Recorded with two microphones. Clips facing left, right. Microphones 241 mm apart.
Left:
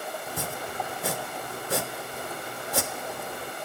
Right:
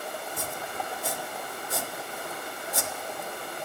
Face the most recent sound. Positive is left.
turn(degrees=70)  # may be behind; listen again after turning